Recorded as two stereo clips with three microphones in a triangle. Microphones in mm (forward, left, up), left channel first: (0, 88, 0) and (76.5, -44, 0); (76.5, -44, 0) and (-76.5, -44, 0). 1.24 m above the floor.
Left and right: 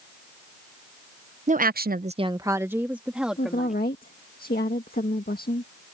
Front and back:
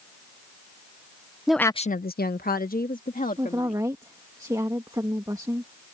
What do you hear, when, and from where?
1.5 s a woman speaking: 95° right; by 3.8 s 30° left
3.4 s a woman speaking: 115° left